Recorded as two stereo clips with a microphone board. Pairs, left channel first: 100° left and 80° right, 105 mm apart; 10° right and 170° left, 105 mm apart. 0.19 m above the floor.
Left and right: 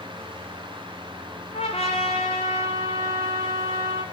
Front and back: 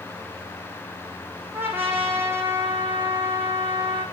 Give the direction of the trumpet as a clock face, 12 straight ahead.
9 o'clock.